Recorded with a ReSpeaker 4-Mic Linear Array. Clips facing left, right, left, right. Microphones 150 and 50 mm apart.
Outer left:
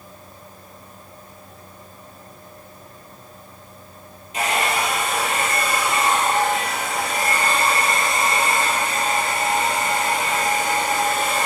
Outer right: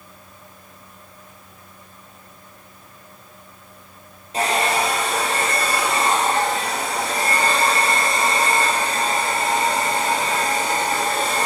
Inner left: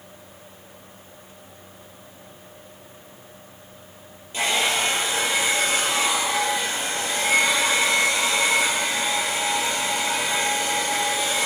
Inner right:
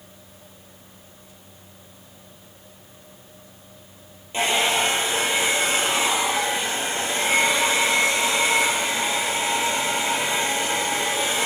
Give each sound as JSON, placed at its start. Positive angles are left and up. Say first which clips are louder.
{"t": 4.3, "sound": "a hair dryer", "louder": "outer right 2 dB, inner right 2 dB", "side_deg": -30, "distance_m": 6.0}